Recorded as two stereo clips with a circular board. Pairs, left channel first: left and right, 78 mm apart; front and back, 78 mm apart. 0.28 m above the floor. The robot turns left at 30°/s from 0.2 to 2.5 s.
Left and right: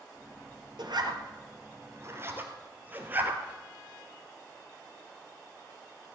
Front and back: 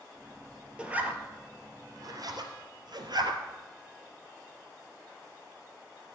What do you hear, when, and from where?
0.8 s a zipper: 105° right, 1.6 m; by 3.4 s 155° right, 1.6 m